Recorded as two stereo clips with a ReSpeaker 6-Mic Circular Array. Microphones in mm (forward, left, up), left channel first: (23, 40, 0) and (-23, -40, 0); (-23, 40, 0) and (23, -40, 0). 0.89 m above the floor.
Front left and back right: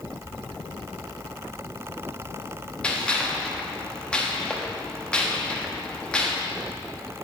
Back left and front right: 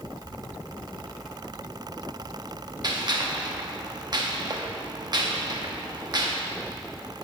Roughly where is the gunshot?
Ahead.